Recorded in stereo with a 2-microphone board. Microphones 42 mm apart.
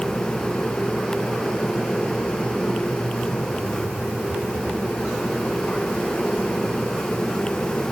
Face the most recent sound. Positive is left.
No sound to turn to.